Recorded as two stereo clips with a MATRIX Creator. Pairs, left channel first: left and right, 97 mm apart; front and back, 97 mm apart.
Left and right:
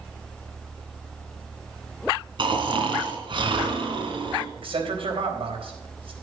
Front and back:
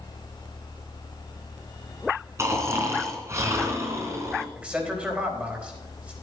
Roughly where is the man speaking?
Right.